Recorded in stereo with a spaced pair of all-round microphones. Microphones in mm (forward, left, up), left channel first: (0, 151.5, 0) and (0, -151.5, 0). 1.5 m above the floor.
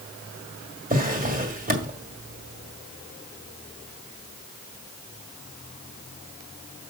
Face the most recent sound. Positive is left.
turn(degrees=-25)  # may be behind; listen again after turning